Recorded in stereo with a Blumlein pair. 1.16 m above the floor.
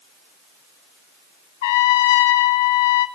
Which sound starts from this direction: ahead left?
A trumpet, at 1.6 s.